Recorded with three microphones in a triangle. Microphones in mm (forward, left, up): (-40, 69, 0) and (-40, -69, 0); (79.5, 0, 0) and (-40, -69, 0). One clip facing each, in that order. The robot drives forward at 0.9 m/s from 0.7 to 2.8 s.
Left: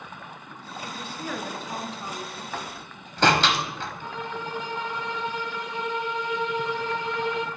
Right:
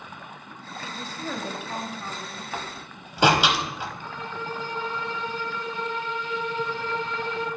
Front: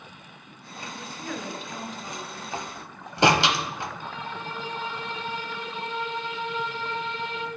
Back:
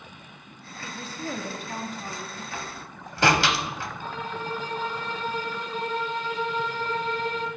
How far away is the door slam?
About 0.9 m.